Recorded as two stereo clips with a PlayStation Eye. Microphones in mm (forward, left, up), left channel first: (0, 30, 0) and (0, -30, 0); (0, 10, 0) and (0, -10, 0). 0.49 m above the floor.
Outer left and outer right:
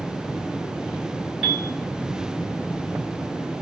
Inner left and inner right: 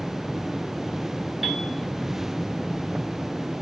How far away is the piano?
About 2.5 m.